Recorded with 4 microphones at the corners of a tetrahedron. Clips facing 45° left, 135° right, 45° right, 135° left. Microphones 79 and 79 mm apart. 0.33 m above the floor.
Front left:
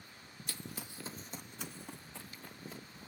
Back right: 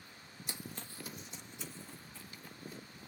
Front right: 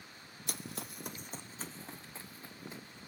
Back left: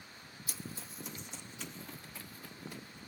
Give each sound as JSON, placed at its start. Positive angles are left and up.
{"t": 0.5, "sound": "running footsteps", "azimuth_deg": -70, "distance_m": 0.6}